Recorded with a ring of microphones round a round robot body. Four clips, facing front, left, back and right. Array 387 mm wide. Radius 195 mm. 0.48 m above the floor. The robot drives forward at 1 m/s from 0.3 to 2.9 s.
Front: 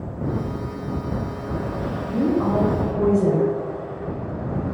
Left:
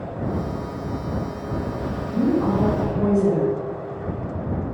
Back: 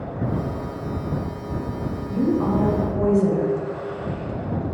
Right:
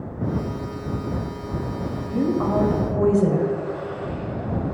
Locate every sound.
2.1 s a woman speaking: 70° right, 2.5 m; by 3.5 s 90° right, 2.5 m